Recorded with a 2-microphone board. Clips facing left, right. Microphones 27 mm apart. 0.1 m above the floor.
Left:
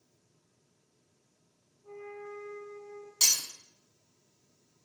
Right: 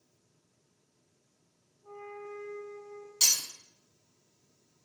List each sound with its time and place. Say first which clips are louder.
1.8 s a flute: even; 75° right (ahead or behind), 1.3 m
3.2 s breaking glass: even; 10° right (ahead or behind), 1.0 m